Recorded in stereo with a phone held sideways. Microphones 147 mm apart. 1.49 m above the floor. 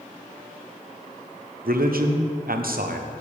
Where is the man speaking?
85° right, 0.8 m.